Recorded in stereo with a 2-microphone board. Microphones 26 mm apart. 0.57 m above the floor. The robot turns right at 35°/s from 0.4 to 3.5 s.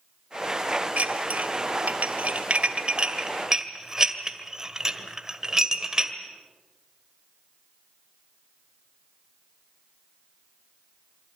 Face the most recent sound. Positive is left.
turn(degrees=-20)  # may be behind; listen again after turning